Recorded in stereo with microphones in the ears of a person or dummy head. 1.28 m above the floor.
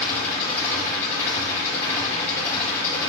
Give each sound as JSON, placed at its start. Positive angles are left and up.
{"t": 0.0, "sound": "an engine running", "side_deg": 10, "distance_m": 5.5}